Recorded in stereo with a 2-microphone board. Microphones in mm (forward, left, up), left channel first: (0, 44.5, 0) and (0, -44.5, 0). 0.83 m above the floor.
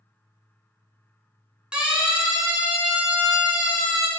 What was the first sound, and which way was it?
A siren, 10° right (ahead or behind).